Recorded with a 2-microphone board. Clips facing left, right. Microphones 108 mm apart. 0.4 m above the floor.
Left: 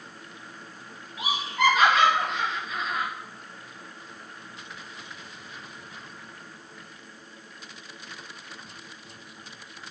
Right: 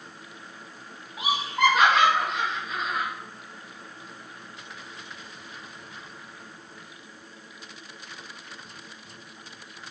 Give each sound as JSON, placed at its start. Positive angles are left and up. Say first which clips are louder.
{"t": 1.2, "sound": "laughter", "louder": "right 2 dB", "side_deg": -55, "distance_m": 2.5}